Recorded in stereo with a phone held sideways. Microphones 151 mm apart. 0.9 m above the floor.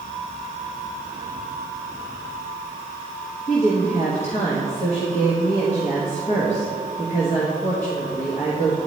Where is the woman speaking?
50° left (ahead or behind), 1.0 m.